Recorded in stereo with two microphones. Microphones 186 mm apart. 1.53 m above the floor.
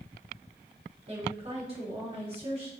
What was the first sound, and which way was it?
A woman speaking, 35° right (ahead or behind).